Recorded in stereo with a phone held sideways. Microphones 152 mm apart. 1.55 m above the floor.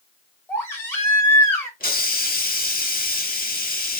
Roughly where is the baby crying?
Centre.